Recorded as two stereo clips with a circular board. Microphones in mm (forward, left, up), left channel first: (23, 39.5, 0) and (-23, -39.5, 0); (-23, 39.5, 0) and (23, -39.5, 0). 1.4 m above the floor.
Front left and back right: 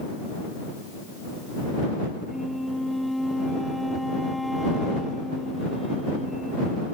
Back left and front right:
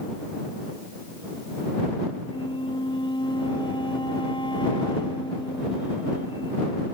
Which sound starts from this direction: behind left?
A flute, at 2.3 s.